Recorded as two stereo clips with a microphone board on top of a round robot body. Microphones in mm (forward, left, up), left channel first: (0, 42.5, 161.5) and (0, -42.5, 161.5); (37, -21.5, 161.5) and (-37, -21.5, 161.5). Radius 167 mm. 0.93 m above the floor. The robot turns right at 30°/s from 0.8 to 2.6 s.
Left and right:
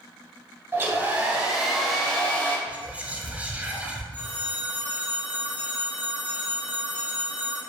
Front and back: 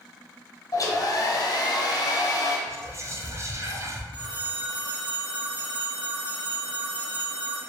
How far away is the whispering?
About 1.0 m.